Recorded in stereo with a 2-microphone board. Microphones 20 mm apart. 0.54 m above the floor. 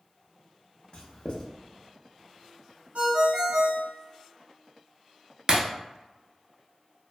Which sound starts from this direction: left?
Writing, at 0.9 s.